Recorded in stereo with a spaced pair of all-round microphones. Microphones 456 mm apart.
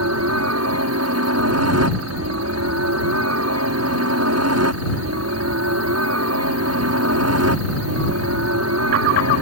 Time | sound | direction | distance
0.0 | a helicopter | 35° right (ahead or behind) | ?